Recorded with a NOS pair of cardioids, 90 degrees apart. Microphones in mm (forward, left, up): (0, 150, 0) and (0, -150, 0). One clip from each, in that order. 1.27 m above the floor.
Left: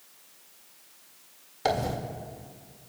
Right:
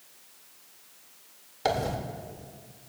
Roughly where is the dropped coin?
Ahead.